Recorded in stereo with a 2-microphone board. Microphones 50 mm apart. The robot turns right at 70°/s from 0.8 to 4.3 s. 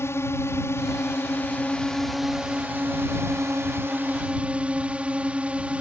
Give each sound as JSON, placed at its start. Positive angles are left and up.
{"t": 0.0, "sound": "a drone", "azimuth_deg": 85}